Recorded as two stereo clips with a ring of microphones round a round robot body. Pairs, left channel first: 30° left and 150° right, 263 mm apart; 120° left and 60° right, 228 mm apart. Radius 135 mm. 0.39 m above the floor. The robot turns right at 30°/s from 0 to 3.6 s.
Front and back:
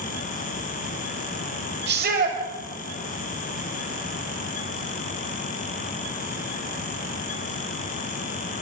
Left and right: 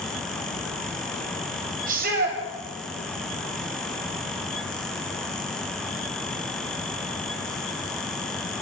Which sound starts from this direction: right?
A shout, at 1.9 s.